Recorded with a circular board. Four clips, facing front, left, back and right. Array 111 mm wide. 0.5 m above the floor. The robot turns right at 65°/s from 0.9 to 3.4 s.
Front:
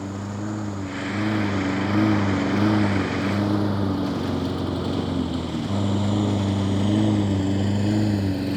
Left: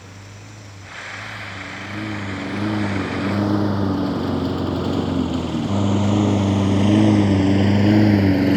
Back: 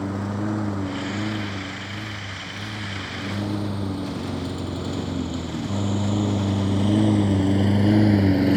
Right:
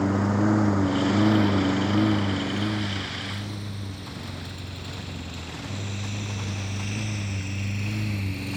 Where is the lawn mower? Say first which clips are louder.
Right 20 dB, back 3 dB; 100° right; by 8.6 s 115° left.